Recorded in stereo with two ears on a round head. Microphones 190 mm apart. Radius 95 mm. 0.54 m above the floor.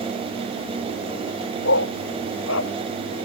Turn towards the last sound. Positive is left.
turn(degrees=65)  # may be behind; listen again after turning